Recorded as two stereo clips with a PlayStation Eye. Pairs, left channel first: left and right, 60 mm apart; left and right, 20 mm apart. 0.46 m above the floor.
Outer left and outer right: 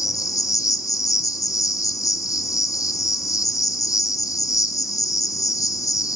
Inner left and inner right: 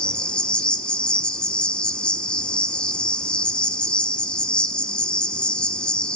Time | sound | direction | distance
0.0 | an insect | 75° left (ahead or behind) | 1.1 m